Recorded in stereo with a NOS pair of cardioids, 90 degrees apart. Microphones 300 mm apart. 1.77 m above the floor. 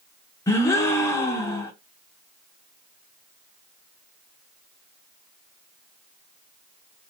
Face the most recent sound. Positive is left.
turn(degrees=10)